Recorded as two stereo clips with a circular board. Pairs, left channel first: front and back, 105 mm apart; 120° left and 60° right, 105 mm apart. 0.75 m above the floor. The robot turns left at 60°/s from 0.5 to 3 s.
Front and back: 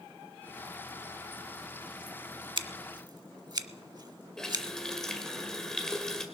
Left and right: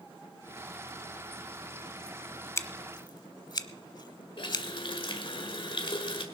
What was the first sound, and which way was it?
Scissors, 175° left.